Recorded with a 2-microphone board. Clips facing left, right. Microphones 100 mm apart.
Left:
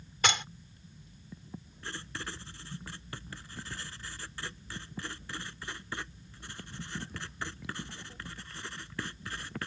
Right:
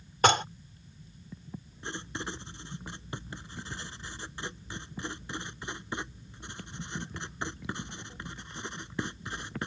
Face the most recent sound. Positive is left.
turn(degrees=-20)  # may be behind; listen again after turning